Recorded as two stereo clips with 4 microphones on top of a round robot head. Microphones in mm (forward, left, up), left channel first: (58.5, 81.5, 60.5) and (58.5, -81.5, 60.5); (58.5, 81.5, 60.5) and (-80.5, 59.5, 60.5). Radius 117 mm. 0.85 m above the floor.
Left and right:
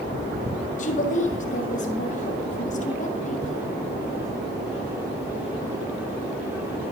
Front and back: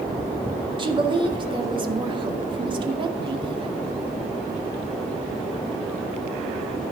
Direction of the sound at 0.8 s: 135° left.